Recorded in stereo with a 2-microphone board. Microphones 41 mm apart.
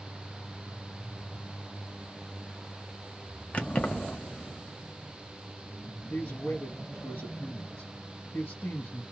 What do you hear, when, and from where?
3.5 s keys jangling: 35° left (ahead or behind), 0.7 m
6.1 s a man speaking: 60° left (ahead or behind), 1.1 m